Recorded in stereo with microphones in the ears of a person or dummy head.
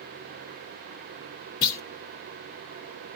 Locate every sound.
1.6 s a clunk: 20° left (ahead or behind), 0.5 m